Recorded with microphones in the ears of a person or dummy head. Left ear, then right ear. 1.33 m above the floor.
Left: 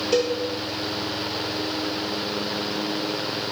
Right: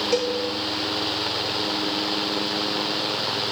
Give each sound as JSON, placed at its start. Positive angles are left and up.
{"t": 0.1, "sound": "a cowbell", "side_deg": -30, "distance_m": 2.0}